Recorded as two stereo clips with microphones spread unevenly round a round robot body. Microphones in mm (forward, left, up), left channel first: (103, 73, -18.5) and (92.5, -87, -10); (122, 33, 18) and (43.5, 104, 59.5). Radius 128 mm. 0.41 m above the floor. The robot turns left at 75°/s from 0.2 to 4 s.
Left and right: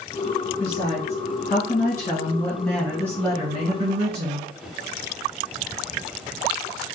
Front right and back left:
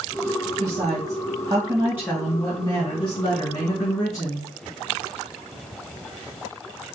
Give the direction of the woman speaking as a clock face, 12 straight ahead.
7 o'clock.